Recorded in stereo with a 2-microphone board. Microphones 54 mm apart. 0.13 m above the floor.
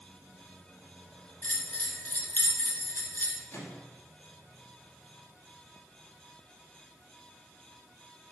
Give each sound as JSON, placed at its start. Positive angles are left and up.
{"t": 1.4, "sound": "a bell", "side_deg": 35, "distance_m": 1.2}
{"t": 3.5, "sound": "a microwave", "side_deg": 55, "distance_m": 2.0}